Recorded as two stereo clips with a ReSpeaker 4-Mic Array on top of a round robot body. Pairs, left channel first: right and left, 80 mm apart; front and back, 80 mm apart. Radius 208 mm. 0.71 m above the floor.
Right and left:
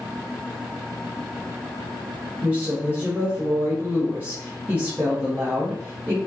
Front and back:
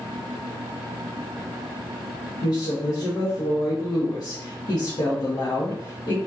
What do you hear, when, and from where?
2.4 s a woman speaking: 20° left, 1.3 m